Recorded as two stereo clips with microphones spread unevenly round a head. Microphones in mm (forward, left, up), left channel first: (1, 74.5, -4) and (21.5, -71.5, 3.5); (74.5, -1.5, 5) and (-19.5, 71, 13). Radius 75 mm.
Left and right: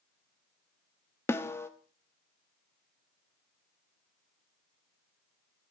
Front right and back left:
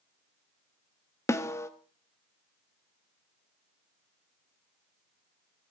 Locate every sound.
1.3 s a snare drum: 25° left, 1.3 m